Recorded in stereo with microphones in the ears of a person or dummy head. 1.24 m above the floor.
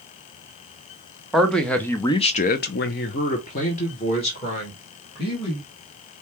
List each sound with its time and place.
1.3 s a man speaking: centre (ahead or behind), 1.1 m; by 5.7 s 35° left (ahead or behind), 2.5 m